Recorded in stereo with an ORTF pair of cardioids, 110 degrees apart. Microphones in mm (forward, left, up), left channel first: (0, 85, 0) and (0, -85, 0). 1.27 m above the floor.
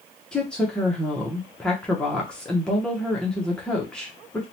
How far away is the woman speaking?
About 0.7 m.